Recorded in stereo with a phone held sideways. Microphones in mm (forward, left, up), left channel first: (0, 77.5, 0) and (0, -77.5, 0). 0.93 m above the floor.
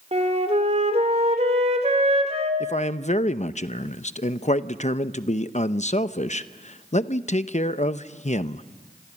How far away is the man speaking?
About 0.7 m.